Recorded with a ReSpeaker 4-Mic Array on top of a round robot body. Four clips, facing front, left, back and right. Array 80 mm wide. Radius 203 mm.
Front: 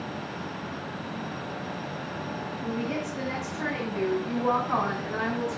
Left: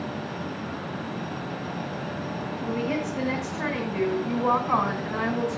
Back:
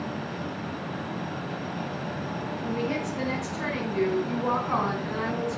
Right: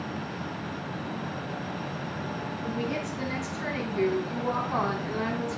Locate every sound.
2.6 s a woman speaking: 110° left, 6.5 m; by 5.6 s 90° left, 8 m